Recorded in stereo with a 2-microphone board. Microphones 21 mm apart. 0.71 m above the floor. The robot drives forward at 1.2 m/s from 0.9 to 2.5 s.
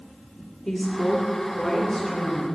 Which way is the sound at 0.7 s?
15° left (ahead or behind).